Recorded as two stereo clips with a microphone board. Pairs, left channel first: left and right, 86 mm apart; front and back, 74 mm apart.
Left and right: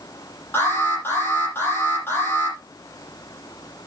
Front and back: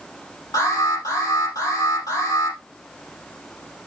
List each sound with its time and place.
0.5 s an alarm: 30° left, 7.5 m